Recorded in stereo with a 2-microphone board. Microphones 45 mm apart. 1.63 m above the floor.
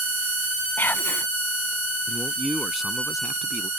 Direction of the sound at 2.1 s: Centre (ahead or behind).